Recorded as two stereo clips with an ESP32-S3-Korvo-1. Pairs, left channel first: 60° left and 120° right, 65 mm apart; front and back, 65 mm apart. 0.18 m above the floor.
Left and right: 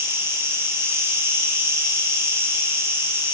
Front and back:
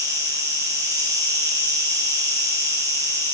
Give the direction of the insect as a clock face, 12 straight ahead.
6 o'clock.